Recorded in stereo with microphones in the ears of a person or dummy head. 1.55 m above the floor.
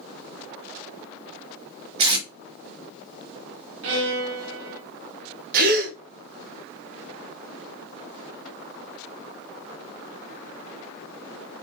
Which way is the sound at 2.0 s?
25° right (ahead or behind).